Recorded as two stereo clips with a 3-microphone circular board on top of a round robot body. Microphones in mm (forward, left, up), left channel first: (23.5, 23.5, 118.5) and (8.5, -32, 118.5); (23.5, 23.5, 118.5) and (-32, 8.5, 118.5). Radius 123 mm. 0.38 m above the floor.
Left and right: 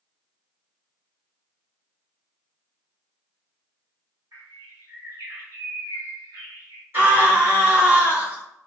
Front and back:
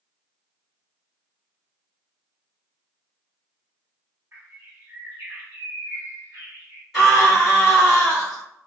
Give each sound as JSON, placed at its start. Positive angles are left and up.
{"t": 4.3, "sound": "a bird", "azimuth_deg": -120, "distance_m": 1.4}
{"t": 6.9, "sound": "a scream", "azimuth_deg": -75, "distance_m": 1.8}